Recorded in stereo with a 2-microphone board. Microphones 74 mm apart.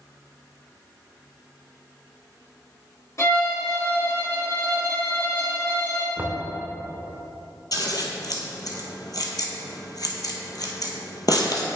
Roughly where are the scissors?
Left.